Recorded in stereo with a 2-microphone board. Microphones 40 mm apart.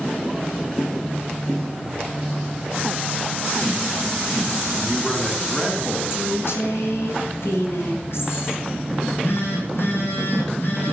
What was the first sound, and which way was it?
A man speaking, 10° left (ahead or behind).